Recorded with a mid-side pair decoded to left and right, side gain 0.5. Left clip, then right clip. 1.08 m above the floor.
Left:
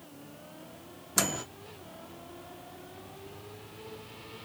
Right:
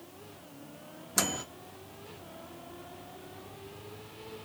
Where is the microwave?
10° left, 0.5 m.